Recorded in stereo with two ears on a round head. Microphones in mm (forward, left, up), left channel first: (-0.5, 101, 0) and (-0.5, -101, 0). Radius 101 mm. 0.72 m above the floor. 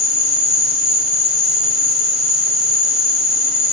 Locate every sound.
0.0 s an insect: 5° right (ahead or behind), 0.7 m